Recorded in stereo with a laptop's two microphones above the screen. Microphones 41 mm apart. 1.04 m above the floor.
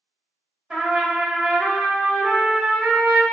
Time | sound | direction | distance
0.7 | a trumpet | 15° right (ahead or behind) | 0.8 m